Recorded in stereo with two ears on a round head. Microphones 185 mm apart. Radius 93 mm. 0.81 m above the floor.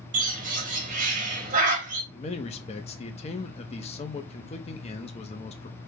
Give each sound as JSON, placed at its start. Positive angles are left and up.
{"t": 0.1, "sound": "a bird", "side_deg": -40, "distance_m": 1.4}
{"t": 2.1, "sound": "a man speaking", "side_deg": 30, "distance_m": 0.9}